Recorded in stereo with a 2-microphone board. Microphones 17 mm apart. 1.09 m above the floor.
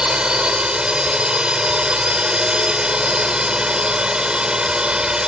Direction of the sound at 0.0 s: 70° right (ahead or behind).